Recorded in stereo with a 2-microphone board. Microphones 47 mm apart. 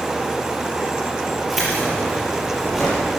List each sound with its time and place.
1.5 s keys jangling: 5° right (ahead or behind), 6 m; by 3.1 s centre (ahead or behind), 7 m